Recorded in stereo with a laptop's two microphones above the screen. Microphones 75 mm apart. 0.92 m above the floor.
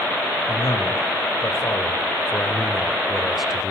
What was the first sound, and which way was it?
A man speaking, 60° left (ahead or behind).